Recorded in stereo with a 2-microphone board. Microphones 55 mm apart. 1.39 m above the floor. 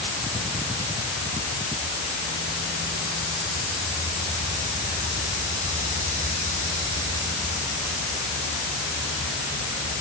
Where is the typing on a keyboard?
I don't hear typing on a keyboard.